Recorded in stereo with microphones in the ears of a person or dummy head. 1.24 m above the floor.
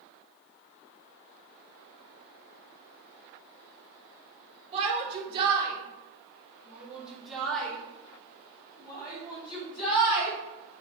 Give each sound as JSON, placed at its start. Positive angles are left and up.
{"t": 4.7, "sound": "a shout", "side_deg": -40, "distance_m": 3.0}